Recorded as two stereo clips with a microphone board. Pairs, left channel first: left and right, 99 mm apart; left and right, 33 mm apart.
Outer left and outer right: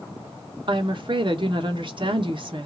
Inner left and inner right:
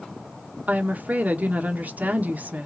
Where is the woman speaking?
50° right (ahead or behind), 1.1 m.